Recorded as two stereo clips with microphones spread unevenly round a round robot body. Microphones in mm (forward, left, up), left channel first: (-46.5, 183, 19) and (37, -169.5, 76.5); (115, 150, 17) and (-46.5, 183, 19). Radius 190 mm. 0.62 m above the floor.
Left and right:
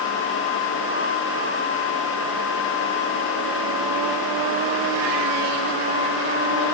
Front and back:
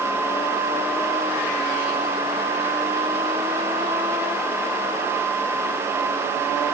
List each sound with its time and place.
Only background noise.